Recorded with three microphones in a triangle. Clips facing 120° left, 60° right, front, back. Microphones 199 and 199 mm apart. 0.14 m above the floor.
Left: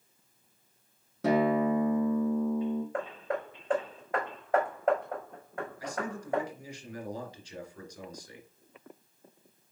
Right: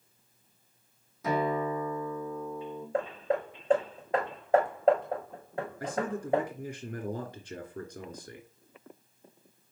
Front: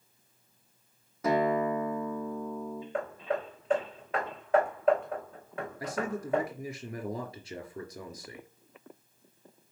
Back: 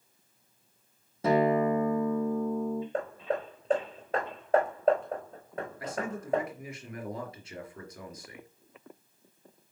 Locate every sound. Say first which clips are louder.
1.2 s a guitar: left 4 dB, back 3 dB; 120° left, 2.5 m
2.9 s hammering: right 4 dB, back 1 dB; 130° right, 4.5 m
5.8 s a man speaking: right 5 dB, front 3 dB; 55° right, 3 m